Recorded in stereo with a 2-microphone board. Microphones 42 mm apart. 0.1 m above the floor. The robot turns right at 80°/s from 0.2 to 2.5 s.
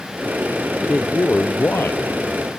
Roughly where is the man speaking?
Ahead.